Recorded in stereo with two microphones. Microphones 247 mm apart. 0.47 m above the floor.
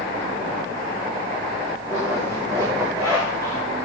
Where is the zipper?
10° right (ahead or behind), 8 m.